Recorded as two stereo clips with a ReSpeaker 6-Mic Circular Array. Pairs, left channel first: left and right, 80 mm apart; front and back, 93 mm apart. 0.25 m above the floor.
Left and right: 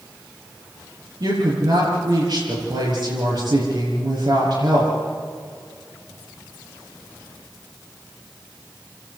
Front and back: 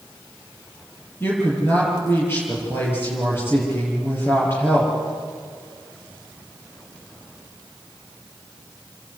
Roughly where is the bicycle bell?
I don't hear a bicycle bell.